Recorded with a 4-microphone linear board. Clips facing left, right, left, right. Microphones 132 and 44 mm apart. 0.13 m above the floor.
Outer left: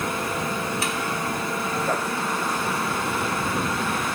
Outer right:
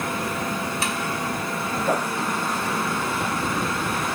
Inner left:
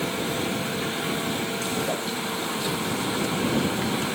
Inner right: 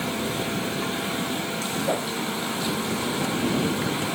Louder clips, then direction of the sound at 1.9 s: Outer right 5 dB, inner right 2 dB; 10° right (ahead or behind).